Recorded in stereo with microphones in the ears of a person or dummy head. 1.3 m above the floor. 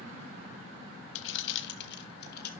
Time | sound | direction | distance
1.1 | keys jangling | 70° left (ahead or behind) | 0.6 m